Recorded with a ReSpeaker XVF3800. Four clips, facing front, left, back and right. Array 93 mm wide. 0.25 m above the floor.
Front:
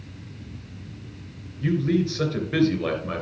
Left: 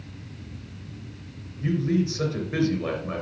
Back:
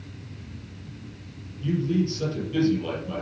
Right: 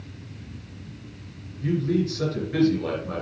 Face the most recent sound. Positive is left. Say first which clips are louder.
# even, front 2 dB
turn(degrees=15)